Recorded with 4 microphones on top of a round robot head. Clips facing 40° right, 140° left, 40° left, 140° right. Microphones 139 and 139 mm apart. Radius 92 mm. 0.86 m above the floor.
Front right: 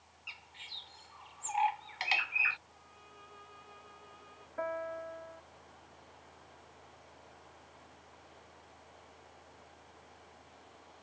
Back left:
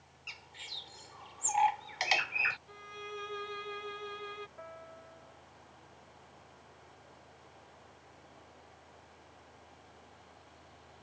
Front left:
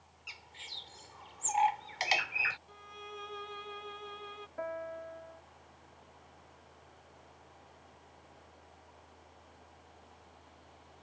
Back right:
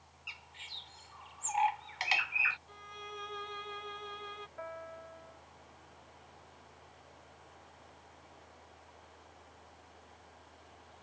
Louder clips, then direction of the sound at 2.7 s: Back left 13 dB, even; 130° left.